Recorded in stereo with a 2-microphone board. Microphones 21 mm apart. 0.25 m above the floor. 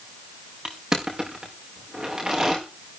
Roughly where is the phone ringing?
I don't hear a phone ringing.